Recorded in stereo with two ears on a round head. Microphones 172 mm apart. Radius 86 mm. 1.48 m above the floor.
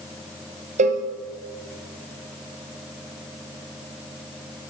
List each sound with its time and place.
0.8 s a cowbell: 35° right (ahead or behind), 0.6 m